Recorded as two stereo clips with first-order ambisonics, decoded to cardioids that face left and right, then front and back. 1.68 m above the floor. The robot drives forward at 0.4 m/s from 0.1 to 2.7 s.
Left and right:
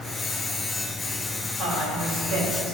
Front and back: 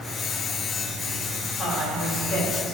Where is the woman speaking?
65° right, 4 m; by 2.7 s 70° right, 3.5 m.